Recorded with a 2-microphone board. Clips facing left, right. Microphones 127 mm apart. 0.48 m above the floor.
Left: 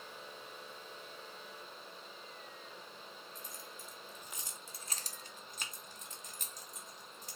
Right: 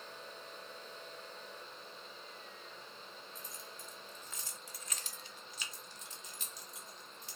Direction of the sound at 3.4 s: Centre (ahead or behind).